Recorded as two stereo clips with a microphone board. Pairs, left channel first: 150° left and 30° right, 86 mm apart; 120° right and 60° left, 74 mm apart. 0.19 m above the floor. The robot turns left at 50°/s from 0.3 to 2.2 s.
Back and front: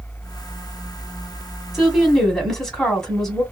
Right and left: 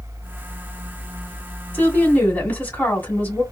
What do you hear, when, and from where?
1.7 s a woman speaking: 110° right, 1.6 m; by 3.4 s 130° right, 1.6 m